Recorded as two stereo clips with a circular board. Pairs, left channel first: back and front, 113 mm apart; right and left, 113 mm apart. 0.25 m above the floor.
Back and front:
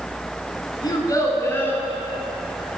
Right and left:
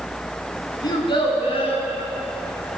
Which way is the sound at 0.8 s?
135° right.